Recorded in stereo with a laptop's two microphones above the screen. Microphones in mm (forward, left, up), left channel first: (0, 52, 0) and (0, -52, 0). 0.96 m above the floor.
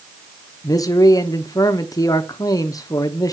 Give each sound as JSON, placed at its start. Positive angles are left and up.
{"t": 0.6, "sound": "a man speaking", "side_deg": 35, "distance_m": 0.9}